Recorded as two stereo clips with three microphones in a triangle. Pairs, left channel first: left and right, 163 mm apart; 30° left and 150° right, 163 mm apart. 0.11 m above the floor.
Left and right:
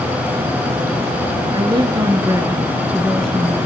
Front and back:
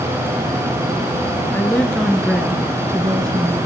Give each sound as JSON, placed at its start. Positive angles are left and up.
{"t": 1.5, "sound": "a woman speaking", "azimuth_deg": -45, "distance_m": 2.0}